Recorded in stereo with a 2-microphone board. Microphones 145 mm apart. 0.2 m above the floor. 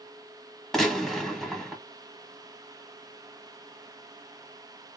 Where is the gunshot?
Centre (ahead or behind), 1.1 m.